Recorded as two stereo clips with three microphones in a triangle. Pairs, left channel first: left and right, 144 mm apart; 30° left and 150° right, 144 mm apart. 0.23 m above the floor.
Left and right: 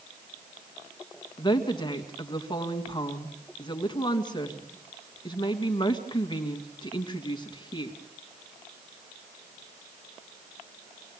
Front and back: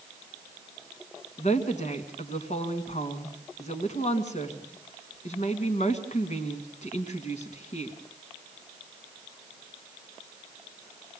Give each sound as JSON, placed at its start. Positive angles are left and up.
{"t": 1.4, "sound": "a woman speaking", "azimuth_deg": 40, "distance_m": 2.0}